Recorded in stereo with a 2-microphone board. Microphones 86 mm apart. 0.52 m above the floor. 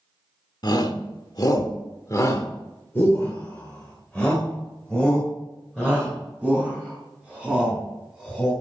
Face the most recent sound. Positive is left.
turn(degrees=0)  # may be behind; listen again after turning